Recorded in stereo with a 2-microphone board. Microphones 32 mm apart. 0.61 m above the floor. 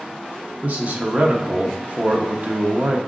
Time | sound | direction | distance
0.6 | a man speaking | 50° right (ahead or behind) | 0.7 m